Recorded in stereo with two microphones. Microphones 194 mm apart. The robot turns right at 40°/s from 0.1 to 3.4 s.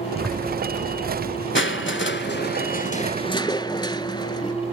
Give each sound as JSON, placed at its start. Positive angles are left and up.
{"t": 0.2, "sound": "a zipper", "side_deg": 5, "distance_m": 1.1}
{"t": 1.6, "sound": "crushing", "azimuth_deg": 85, "distance_m": 0.5}